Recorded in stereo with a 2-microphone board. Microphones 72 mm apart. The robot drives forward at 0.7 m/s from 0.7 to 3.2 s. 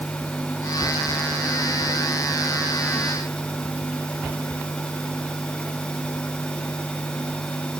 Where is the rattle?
No rattle in this recording.